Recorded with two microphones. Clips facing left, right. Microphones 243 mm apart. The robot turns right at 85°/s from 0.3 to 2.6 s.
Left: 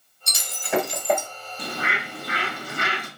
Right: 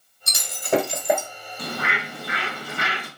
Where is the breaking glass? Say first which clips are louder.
Right 5 dB; 80° right, 1.8 m; by 1.3 s straight ahead, 1.8 m.